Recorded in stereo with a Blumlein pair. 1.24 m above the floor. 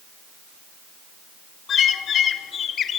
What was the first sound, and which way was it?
A bird, 25° left.